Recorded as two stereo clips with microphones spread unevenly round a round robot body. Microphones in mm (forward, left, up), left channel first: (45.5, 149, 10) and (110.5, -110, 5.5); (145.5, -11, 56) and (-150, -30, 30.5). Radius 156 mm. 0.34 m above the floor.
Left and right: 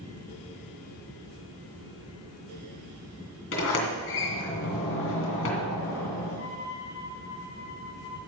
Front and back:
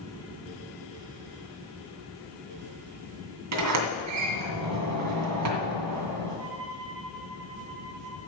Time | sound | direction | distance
3.5 | a sliding door | 155° left | 2 m
6.4 | a violin | 80° left | 6 m